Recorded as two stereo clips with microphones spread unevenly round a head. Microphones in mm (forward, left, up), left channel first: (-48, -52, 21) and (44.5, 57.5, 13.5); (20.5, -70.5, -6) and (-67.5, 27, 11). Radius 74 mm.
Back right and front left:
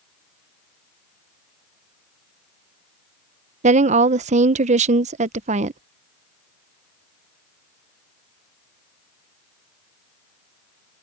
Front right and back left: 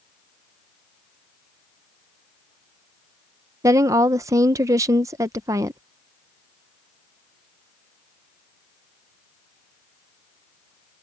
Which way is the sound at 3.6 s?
60° left.